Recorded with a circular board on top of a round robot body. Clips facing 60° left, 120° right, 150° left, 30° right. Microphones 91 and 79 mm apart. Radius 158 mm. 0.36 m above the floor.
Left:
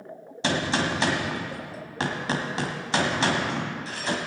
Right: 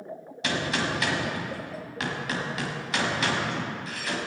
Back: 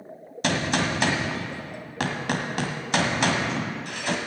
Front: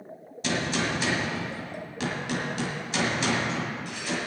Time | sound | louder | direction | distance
0.4 | a gunshot | left 3 dB, back 3 dB | 120° left | 1.8 m